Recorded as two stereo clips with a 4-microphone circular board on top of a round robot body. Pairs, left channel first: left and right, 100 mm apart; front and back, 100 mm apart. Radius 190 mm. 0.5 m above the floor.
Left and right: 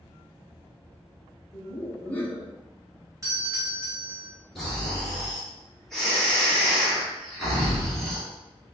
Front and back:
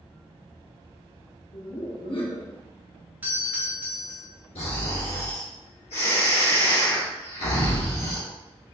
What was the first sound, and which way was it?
Laughter, 20° left.